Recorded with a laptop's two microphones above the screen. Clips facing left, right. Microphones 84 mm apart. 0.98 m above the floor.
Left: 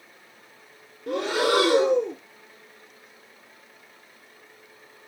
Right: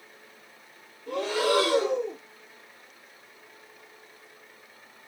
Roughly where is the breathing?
Left.